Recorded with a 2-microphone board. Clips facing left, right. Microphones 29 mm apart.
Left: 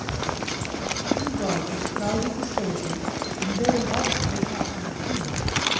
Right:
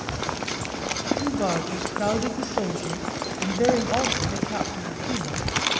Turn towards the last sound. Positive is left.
turn(degrees=-25)  # may be behind; listen again after turning